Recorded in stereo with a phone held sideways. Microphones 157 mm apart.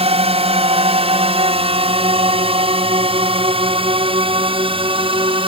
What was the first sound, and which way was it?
A drone, 35° right (ahead or behind).